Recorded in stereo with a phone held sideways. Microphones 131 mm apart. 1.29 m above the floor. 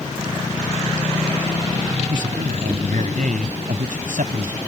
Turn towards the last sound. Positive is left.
turn(degrees=-85)